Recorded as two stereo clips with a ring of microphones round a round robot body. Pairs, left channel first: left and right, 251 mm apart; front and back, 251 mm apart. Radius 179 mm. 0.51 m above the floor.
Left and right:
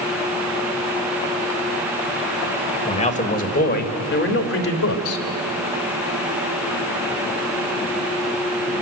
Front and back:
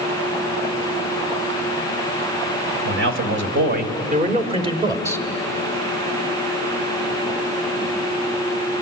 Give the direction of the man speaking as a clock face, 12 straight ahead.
7 o'clock.